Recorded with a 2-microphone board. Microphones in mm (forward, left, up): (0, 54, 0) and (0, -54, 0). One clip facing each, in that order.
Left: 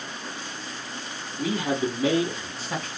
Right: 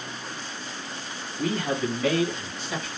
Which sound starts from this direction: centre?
A man speaking, at 1.4 s.